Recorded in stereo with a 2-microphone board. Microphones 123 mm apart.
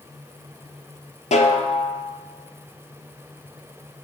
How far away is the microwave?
I don't hear a microwave.